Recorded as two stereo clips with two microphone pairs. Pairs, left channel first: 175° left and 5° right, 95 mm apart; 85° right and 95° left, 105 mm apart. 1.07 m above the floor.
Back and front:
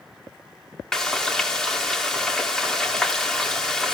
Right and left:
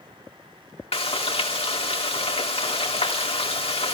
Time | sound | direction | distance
0.9 | frying | 100° right | 2.5 m